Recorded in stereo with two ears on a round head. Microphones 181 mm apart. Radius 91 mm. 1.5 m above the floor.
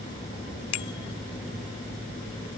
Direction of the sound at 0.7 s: 80° left.